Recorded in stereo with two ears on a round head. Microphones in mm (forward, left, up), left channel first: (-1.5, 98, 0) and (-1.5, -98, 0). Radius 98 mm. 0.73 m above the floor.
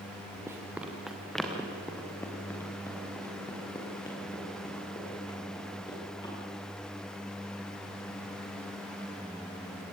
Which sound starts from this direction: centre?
Running footsteps, at 0.5 s.